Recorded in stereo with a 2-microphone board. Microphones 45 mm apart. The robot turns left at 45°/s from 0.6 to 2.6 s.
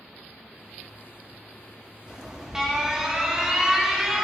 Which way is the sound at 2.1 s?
25° right (ahead or behind).